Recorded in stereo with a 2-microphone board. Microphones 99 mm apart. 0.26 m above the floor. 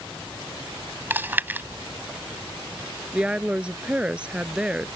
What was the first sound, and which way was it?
Chewing, 20° right (ahead or behind).